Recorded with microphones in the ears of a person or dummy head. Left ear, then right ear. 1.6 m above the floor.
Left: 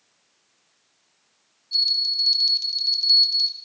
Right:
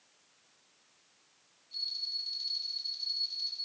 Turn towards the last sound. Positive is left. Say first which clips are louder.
# left 15 dB
turn(degrees=45)  # may be behind; listen again after turning